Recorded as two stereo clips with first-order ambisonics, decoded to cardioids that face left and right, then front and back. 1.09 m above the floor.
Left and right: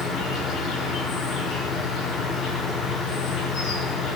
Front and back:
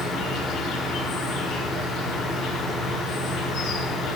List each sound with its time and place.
0.0 s an insect: 45° left, 4 m